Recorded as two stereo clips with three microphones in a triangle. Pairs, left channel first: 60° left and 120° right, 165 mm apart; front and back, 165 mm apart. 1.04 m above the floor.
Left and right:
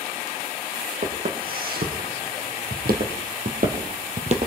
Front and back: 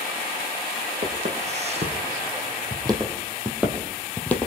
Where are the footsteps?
140° right, 4 m; by 4.5 s 75° right, 2 m.